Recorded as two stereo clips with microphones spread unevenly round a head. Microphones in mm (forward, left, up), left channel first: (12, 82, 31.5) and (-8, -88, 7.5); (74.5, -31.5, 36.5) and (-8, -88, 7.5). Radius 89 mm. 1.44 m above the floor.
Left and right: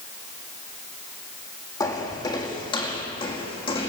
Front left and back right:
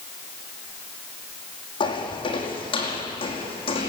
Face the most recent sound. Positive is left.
turn(degrees=30)